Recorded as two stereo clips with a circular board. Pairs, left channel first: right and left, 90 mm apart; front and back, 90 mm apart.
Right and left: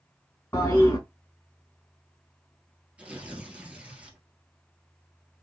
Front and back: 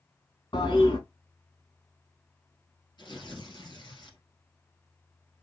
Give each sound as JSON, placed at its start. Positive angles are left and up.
{"t": 0.5, "sound": "a toilet flushing", "azimuth_deg": -25, "distance_m": 4.0}
{"t": 3.0, "sound": "tearing paper", "azimuth_deg": 15, "distance_m": 2.0}